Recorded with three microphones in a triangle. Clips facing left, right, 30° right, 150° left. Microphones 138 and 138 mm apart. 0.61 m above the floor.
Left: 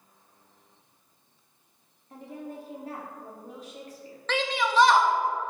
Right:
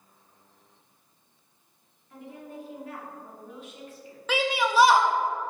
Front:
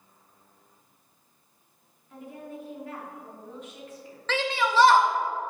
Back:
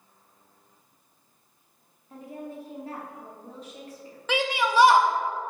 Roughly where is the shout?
Behind right.